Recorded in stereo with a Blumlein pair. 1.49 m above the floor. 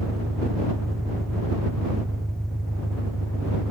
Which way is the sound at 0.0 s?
5° right.